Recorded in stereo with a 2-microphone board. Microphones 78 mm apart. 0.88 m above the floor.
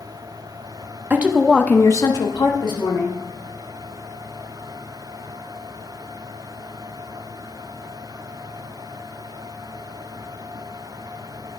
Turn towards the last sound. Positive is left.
turn(degrees=75)  # may be behind; listen again after turning